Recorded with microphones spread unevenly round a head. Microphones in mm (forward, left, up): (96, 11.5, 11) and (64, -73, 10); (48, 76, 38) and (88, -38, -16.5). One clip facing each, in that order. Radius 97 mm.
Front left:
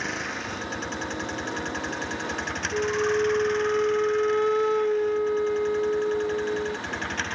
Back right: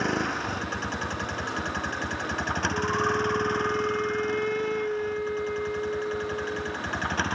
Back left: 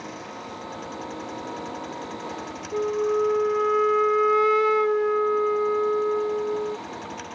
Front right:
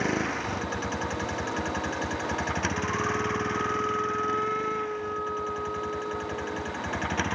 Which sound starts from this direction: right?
A vehicle, at 0.0 s.